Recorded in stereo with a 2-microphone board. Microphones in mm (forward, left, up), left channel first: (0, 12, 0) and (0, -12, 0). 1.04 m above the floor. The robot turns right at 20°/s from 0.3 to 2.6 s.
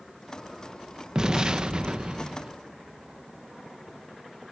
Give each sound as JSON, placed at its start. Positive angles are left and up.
{"t": 1.1, "sound": "an explosion", "side_deg": -30, "distance_m": 1.1}